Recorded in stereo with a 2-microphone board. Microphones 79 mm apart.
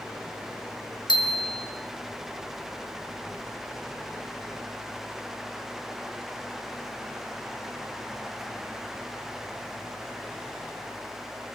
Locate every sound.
1.1 s a bicycle bell: 75° left (ahead or behind), 4.5 m